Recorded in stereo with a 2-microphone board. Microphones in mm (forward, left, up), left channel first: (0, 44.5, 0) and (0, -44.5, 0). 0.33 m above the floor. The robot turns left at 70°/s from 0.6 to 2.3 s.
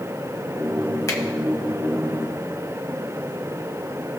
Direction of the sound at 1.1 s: 40° left (ahead or behind).